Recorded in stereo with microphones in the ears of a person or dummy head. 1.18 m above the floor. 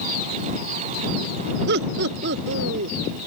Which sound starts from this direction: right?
Laughter, at 1.7 s.